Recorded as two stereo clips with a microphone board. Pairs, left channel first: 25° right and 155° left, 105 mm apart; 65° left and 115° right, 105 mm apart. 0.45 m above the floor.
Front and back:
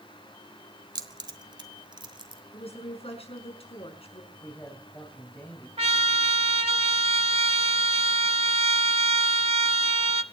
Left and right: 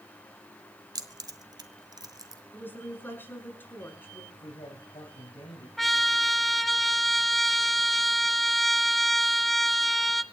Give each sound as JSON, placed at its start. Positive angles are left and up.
{"t": 0.9, "sound": "keys jangling", "azimuth_deg": -160, "distance_m": 1.3}
{"t": 2.5, "sound": "a woman speaking", "azimuth_deg": -5, "distance_m": 5.5}
{"t": 4.3, "sound": "a man speaking", "azimuth_deg": 50, "distance_m": 3.5}
{"t": 5.8, "sound": "a trumpet", "azimuth_deg": 155, "distance_m": 0.9}